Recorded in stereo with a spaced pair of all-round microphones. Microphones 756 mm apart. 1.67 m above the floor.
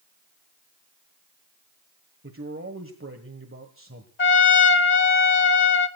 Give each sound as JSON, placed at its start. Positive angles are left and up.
{"t": 2.2, "sound": "a man speaking", "side_deg": -15, "distance_m": 1.5}
{"t": 4.2, "sound": "a trumpet", "side_deg": 60, "distance_m": 1.8}